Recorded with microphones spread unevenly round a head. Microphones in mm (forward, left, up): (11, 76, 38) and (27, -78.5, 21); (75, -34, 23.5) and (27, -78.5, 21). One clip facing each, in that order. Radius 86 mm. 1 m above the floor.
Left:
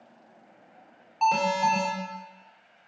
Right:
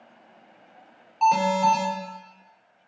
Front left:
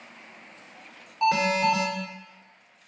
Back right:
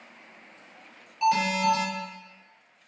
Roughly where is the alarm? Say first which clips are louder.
Right 4 dB, front left 1 dB; ahead.